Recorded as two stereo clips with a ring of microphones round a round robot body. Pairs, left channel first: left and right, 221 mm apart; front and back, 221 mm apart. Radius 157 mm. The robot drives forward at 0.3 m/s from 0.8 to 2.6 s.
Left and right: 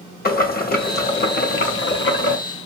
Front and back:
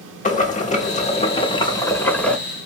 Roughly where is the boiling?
Ahead left.